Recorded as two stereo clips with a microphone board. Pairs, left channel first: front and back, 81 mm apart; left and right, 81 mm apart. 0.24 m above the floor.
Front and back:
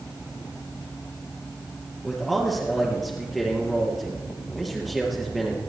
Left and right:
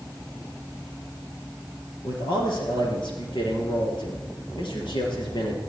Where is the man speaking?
90° left, 5.5 m.